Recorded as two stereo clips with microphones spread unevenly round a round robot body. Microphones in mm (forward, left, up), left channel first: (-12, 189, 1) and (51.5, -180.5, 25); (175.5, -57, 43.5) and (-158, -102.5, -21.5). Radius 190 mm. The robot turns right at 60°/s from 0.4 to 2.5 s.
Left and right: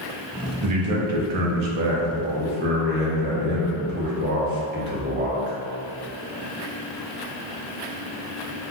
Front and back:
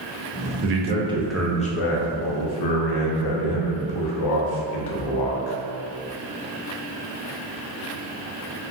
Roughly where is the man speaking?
Behind right.